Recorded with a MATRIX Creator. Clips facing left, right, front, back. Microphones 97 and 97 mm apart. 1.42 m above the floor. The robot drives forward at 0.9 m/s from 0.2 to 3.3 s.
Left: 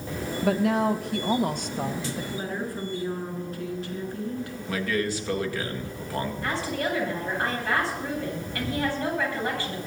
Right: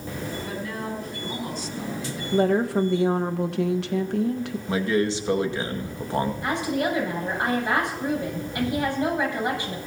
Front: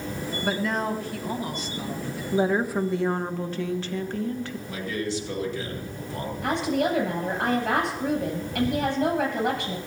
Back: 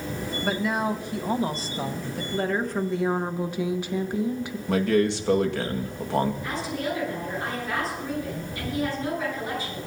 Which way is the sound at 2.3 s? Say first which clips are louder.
Right 11 dB, front 4 dB; 65° right.